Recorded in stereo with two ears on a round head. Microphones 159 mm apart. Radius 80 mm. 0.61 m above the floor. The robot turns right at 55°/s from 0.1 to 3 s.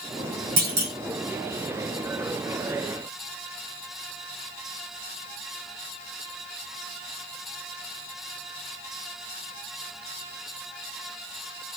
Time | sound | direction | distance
0.6 | a clunk | 55° right (ahead or behind) | 1.0 m